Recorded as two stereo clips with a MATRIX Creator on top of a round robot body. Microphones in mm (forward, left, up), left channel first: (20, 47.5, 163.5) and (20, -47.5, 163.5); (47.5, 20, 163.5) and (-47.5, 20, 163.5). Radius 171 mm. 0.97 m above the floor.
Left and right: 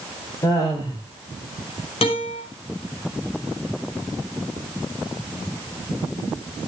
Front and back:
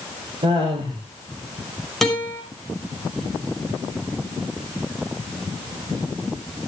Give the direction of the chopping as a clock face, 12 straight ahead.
No chopping in this recording.